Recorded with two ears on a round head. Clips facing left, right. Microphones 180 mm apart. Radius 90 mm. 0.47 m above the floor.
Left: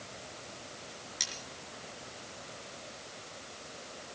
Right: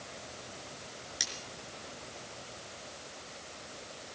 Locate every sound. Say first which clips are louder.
1.2 s cutlery clinking: right 1 dB; 10° right (ahead or behind), 4.5 m